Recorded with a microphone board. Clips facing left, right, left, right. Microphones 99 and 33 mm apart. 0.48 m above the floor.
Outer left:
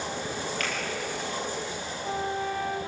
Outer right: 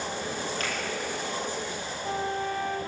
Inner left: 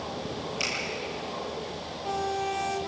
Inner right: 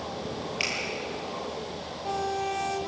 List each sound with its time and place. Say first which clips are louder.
0.6 s a finger snap: even, inner right 2 dB; 35° right (ahead or behind), 7.5 m